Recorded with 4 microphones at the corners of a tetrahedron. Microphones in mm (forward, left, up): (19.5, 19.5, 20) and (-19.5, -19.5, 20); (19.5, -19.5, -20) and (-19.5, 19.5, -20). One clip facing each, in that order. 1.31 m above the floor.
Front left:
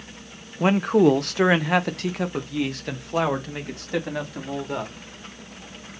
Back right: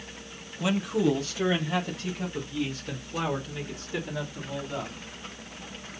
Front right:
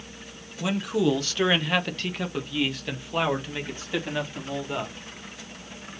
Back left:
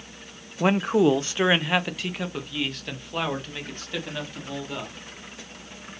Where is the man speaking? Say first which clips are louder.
Front left 8 dB, back left 5 dB; 95° left, 0.7 m; by 5.1 s 30° left, 3 m.